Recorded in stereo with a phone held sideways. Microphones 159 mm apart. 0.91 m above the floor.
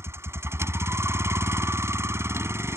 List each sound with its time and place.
0.0 s a vehicle: 15° right (ahead or behind)